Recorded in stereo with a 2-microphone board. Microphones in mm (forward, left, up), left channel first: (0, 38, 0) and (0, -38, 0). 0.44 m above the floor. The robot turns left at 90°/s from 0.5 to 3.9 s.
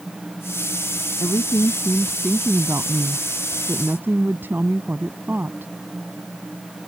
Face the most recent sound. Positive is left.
turn(degrees=-150)